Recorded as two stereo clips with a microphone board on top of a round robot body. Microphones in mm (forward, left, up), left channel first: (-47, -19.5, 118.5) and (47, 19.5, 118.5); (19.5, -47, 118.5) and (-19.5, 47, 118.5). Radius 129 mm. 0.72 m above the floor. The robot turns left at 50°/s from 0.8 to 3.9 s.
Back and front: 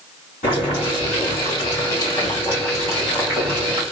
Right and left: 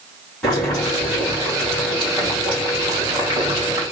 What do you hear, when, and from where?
0.4 s boiling: 145° right, 3 m; by 3.8 s 60° left, 3 m